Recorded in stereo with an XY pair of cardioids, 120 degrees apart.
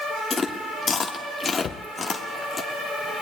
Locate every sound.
0.3 s chewing: 30° left, 1.3 m
1.6 s a cupboard door: 45° left, 0.7 m